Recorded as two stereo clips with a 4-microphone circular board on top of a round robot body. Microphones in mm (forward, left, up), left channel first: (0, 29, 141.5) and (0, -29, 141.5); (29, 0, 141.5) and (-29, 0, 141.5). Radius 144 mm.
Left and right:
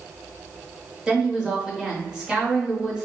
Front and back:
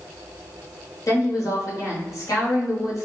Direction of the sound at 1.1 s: 15° right.